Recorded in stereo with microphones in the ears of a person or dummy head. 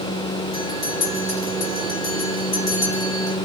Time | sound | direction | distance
0.5 | a bell | 55° left (ahead or behind) | 2.5 m